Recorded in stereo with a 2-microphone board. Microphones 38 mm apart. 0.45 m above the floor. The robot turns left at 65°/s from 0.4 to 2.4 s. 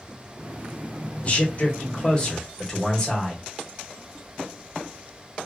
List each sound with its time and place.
1.2 s a man speaking: 100° left, 1.0 m; by 3.4 s 20° left, 1.0 m